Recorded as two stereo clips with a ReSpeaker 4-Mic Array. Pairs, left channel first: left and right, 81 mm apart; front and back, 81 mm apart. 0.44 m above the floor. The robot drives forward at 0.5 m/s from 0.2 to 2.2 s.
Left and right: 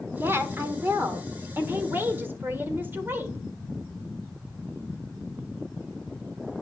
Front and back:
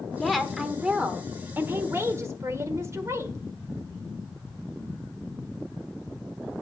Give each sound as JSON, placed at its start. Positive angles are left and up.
{"t": 0.1, "sound": "a woman speaking", "azimuth_deg": -80, "distance_m": 1.3}